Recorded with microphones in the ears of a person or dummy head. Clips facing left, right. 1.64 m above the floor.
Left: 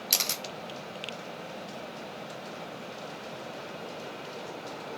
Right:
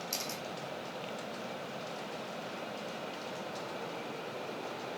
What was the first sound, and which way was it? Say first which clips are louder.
A camera shutter: left 2 dB; 80° left.